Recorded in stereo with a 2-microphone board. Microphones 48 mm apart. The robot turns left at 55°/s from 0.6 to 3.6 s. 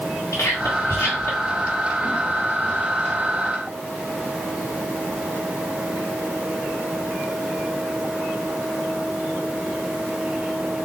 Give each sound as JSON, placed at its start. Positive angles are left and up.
{"t": 0.3, "sound": "whispering", "side_deg": 65, "distance_m": 1.4}